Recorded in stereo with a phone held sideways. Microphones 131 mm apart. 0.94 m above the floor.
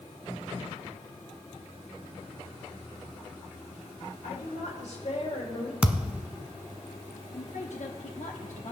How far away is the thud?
About 0.9 m.